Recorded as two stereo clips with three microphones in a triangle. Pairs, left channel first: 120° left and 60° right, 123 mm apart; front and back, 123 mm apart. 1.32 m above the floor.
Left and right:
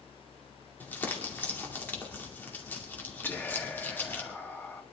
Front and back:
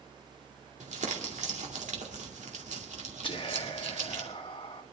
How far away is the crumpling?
About 2.5 m.